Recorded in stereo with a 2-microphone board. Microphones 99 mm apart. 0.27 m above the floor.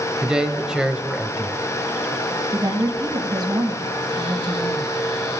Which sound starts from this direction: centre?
A man speaking, at 0.2 s.